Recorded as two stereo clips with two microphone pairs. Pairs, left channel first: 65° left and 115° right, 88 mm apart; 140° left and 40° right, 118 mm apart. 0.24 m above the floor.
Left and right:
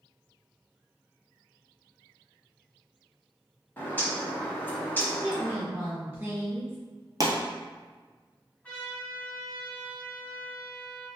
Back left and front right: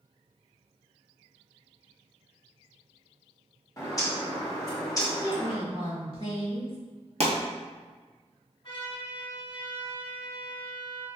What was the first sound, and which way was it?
A bird, 110° left.